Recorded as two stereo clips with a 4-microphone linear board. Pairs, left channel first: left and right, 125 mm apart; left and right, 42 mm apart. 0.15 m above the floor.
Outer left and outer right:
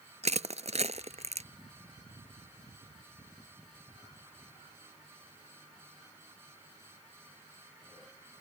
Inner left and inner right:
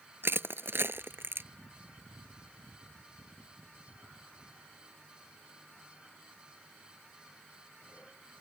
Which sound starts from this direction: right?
Crushing, at 0.2 s.